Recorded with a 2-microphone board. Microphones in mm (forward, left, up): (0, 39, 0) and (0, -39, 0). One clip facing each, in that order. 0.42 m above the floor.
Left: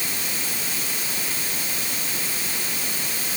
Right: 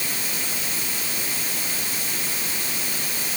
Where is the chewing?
No chewing in this recording.